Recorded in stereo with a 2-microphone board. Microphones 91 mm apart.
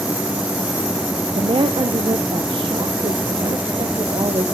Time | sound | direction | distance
1.4 | a woman speaking | 75° right (ahead or behind) | 0.7 m